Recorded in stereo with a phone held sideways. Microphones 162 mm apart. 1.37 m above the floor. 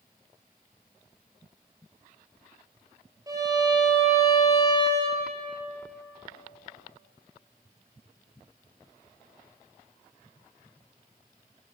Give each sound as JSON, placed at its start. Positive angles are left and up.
{"t": 3.3, "sound": "a violin", "side_deg": -25, "distance_m": 2.5}